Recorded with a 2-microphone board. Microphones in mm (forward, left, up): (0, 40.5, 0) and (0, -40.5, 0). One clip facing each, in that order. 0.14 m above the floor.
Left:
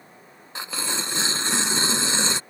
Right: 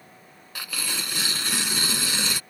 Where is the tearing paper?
25° left (ahead or behind).